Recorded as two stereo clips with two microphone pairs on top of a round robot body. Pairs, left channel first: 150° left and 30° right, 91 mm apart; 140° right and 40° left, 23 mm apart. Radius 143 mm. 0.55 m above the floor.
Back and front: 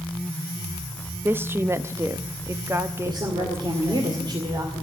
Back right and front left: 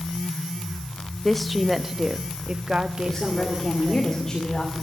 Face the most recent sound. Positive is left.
turn(degrees=-65)